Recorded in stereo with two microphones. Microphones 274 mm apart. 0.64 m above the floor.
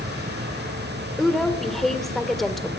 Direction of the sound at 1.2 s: Centre (ahead or behind).